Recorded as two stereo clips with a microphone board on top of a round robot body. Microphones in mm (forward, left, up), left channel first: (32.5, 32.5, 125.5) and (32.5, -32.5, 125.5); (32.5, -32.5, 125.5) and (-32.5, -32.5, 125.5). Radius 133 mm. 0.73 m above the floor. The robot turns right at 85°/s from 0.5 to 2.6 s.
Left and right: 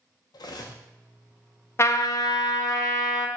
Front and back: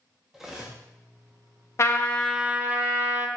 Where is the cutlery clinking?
100° left, 0.5 m; by 0.8 s 125° left, 0.5 m.